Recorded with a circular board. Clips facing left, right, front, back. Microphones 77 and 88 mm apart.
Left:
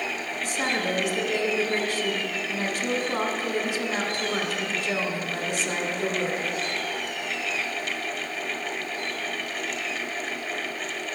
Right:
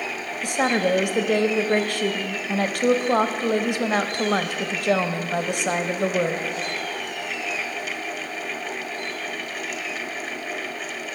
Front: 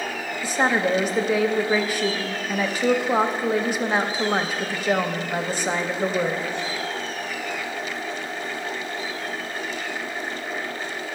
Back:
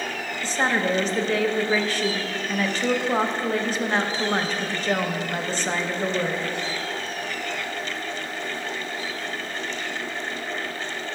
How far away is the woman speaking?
About 0.6 m.